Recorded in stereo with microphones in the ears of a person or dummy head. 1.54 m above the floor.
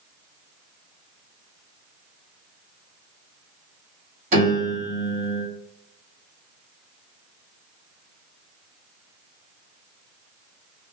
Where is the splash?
No splash in this recording.